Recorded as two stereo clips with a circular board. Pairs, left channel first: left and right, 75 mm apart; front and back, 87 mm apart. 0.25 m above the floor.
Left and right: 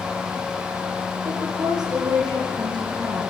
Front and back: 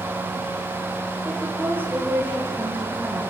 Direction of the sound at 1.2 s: 115° right.